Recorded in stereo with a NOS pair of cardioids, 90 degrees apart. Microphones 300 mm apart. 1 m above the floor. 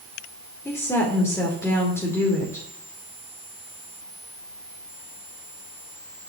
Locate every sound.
0.7 s a woman speaking: 10° left, 2.5 m